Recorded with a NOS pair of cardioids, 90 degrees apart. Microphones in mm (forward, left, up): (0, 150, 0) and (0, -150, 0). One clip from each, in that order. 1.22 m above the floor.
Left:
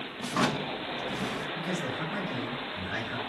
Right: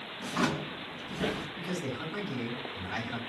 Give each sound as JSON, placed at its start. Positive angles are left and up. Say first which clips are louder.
{"t": 0.2, "sound": "a drawer", "louder": "left 3 dB", "azimuth_deg": 30, "distance_m": 0.9}
{"t": 1.6, "sound": "a man speaking", "louder": "left 4 dB", "azimuth_deg": 5, "distance_m": 3.5}